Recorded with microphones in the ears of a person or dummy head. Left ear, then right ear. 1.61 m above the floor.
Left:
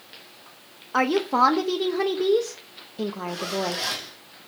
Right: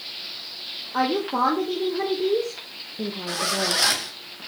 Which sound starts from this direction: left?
A woman speaking, at 0.9 s.